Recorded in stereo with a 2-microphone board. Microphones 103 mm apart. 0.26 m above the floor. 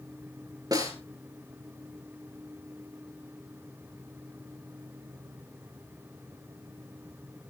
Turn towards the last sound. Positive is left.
turn(degrees=-40)  # may be behind; listen again after turning